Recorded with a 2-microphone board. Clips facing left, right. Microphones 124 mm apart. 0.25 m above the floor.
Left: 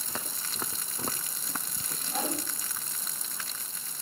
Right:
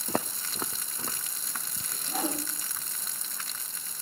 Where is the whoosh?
5° right (ahead or behind), 8.5 m.